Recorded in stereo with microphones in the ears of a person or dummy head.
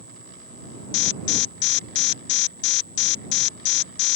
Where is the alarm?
60° left (ahead or behind).